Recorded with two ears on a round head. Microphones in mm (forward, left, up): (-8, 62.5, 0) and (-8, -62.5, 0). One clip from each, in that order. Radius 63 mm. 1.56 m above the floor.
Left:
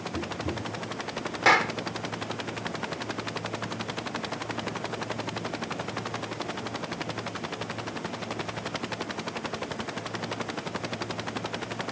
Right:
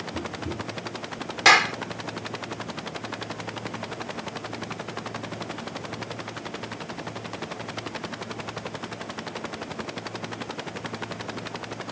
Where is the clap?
75° right (ahead or behind).